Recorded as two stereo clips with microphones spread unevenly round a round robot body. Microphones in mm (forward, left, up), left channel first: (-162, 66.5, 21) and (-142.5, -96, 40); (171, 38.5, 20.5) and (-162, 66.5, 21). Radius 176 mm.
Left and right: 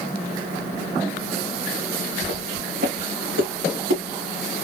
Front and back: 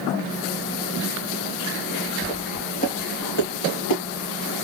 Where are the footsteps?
85° right, 3 m; by 4.0 s 55° right, 3 m.